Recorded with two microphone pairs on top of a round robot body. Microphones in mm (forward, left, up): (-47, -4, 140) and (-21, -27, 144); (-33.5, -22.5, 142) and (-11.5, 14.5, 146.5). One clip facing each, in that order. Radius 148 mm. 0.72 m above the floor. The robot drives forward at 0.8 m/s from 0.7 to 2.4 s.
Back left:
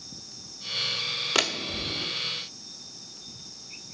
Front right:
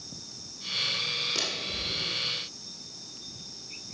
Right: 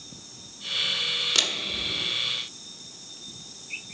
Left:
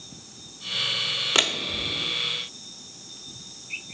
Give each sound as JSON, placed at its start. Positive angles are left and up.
{"t": 1.4, "sound": "a door slam", "azimuth_deg": 115, "distance_m": 1.2}